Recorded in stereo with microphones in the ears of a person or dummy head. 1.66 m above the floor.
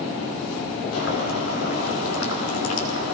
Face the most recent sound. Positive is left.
turn(degrees=90)